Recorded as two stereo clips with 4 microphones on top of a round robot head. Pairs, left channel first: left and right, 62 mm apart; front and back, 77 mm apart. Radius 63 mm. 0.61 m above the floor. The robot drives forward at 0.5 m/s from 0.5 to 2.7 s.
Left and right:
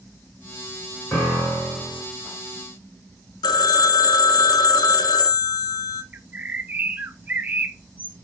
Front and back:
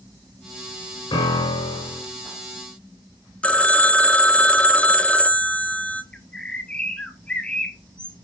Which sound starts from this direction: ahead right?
A bird, at 6.1 s.